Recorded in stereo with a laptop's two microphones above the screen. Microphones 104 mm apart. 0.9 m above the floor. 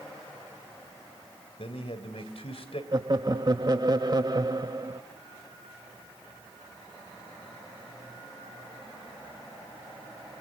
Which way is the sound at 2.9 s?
40° right (ahead or behind).